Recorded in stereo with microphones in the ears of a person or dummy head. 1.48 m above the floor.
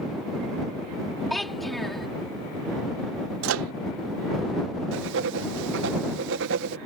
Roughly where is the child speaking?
Centre.